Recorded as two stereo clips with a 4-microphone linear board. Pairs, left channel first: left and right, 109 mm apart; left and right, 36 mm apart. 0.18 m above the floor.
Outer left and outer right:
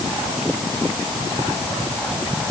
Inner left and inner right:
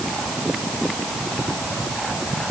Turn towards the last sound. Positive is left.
No sound to turn to.